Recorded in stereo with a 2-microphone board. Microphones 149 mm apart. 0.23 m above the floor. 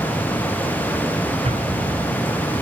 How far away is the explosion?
About 2.5 m.